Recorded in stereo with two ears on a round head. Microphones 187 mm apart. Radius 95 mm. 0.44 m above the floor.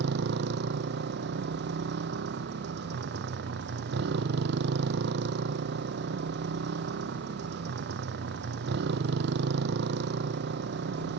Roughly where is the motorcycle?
Right.